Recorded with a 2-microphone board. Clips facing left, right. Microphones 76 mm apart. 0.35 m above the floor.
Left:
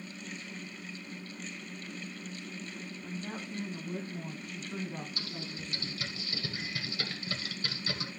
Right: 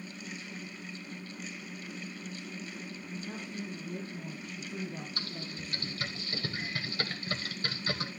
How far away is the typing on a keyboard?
About 1.4 m.